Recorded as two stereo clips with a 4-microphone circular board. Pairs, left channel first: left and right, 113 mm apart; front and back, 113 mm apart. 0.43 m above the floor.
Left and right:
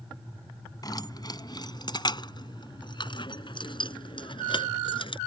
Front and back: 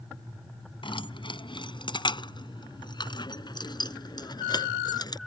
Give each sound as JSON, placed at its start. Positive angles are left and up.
{"t": 0.8, "sound": "keys jangling", "azimuth_deg": 35}